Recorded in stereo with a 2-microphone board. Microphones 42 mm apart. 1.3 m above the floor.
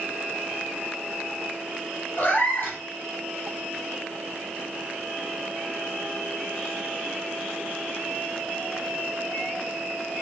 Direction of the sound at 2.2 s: 50° left (ahead or behind).